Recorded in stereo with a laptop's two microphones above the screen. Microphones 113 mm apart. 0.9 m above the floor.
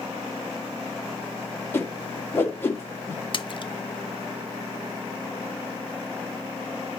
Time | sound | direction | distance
1.7 | a whoosh | 20° left (ahead or behind) | 1.8 m
3.3 | a splash | 45° left (ahead or behind) | 0.5 m